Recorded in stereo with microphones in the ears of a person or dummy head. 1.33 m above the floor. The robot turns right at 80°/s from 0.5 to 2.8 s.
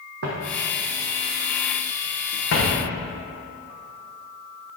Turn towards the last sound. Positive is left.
turn(degrees=55)  # may be behind; listen again after turning